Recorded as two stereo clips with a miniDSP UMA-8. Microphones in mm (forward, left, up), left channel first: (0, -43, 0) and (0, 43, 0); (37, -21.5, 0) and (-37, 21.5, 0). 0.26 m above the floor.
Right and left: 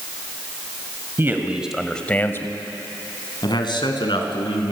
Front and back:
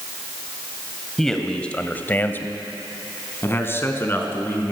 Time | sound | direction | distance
1.2 | a man speaking | 55° left | 1.8 m